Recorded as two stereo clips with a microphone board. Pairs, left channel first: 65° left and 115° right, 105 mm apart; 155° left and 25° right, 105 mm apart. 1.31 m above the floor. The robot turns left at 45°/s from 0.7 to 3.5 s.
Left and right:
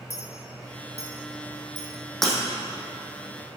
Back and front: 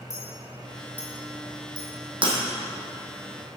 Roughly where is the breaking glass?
Ahead.